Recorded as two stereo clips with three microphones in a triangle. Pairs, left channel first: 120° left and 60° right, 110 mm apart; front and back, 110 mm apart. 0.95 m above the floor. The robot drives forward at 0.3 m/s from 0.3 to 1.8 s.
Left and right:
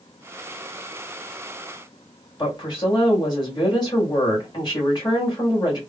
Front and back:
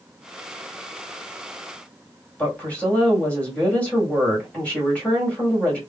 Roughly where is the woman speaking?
Left.